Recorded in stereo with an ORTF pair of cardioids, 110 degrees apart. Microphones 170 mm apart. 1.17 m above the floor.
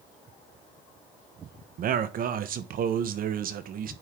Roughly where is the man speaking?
Ahead right.